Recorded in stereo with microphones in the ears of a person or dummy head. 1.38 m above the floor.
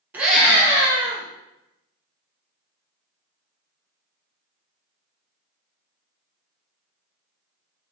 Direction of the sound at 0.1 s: 5° right (ahead or behind).